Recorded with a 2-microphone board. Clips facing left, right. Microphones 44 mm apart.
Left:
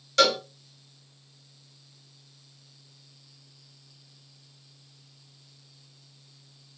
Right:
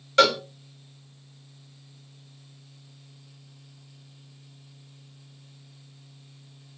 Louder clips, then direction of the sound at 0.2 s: Right 3 dB; 20° right (ahead or behind).